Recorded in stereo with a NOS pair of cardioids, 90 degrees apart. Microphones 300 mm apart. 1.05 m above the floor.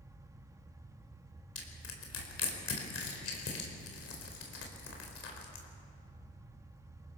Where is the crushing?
50° left, 4.5 m.